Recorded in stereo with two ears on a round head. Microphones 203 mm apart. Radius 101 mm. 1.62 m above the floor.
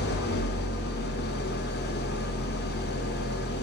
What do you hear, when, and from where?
0.0 s an engine running: 45° left (ahead or behind), 0.9 m